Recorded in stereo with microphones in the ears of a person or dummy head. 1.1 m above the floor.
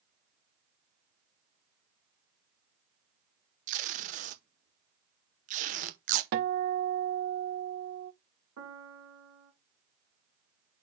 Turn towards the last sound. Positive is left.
turn(degrees=-85)